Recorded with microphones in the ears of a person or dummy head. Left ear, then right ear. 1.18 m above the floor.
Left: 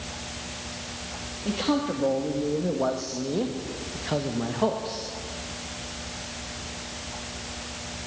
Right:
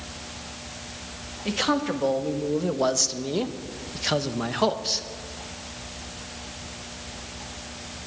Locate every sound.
1.4 s a man speaking: 55° right (ahead or behind), 2 m; by 5.0 s 50° right (ahead or behind), 1.4 m